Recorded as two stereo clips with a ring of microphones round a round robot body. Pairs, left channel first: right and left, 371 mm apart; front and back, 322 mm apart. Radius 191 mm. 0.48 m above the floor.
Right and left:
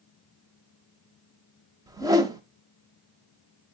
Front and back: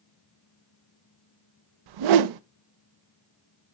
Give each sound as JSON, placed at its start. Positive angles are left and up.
{"t": 1.9, "sound": "a whoosh", "azimuth_deg": 170, "distance_m": 0.5}